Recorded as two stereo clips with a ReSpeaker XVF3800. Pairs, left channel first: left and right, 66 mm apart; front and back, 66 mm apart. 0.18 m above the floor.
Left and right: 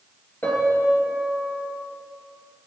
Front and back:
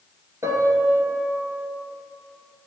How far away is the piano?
About 2.5 m.